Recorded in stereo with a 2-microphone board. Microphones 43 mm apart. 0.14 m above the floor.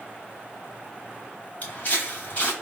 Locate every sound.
1.6 s footsteps: 35° left (ahead or behind), 2.0 m